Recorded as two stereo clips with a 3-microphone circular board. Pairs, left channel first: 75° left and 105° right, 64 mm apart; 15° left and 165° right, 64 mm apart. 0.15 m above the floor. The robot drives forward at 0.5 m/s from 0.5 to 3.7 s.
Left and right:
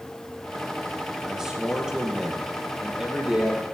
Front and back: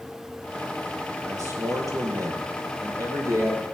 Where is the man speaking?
175° left, 4 m.